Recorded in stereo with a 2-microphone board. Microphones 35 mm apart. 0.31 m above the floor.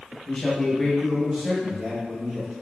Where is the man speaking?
30° left (ahead or behind), 1.0 m; by 2.5 s 55° right (ahead or behind), 1.6 m.